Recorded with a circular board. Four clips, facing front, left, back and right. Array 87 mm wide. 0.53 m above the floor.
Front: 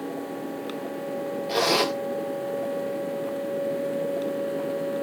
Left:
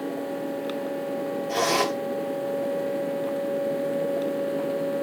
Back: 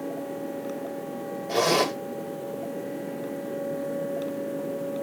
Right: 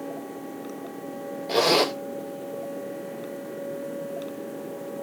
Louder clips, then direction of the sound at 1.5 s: Right 3 dB, back 1 dB; 55° right.